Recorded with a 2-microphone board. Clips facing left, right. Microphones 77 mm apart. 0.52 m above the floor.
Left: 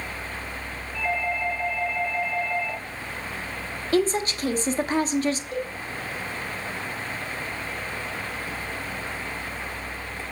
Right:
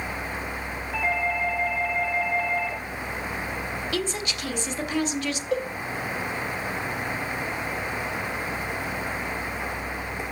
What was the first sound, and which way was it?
A doorbell, 75° right (ahead or behind).